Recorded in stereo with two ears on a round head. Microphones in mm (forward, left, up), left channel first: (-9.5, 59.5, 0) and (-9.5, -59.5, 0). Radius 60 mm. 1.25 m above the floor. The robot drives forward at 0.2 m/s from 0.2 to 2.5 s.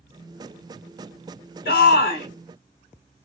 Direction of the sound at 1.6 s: 70° left (ahead or behind).